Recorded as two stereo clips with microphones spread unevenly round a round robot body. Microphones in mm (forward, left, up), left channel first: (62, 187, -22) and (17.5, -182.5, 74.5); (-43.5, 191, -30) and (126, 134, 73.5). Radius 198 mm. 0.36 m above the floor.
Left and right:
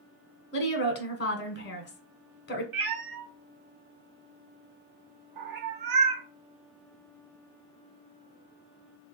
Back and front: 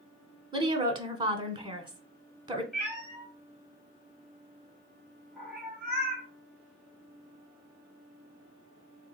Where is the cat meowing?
135° right, 0.9 m.